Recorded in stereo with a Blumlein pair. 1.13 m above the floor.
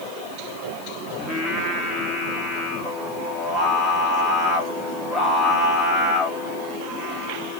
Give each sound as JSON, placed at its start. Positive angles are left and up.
{"t": 1.2, "sound": "singing", "azimuth_deg": 15, "distance_m": 3.0}